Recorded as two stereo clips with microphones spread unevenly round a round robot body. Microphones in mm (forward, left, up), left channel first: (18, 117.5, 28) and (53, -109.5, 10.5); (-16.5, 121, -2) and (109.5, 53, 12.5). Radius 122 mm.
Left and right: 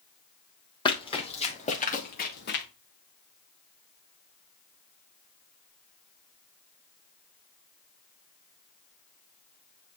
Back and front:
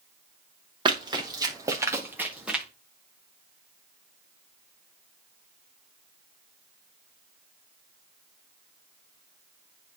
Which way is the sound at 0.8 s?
30° left.